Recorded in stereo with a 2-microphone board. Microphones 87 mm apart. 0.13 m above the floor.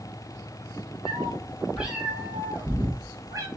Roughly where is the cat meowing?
Centre.